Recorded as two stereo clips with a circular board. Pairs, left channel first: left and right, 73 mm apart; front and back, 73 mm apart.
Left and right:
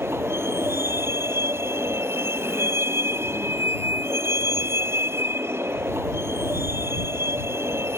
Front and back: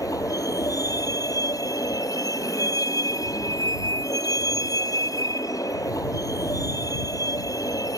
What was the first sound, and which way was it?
A vehicle, 35° right.